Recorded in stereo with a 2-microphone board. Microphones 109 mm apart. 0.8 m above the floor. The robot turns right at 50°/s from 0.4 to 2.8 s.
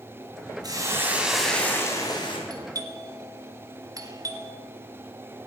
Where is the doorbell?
35° right (ahead or behind), 1.3 m.